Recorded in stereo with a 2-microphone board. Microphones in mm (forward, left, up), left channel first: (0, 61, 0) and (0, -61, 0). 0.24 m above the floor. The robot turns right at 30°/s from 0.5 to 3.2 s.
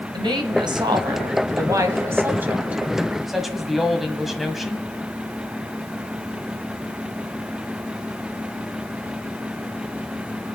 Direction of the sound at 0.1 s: 80° right.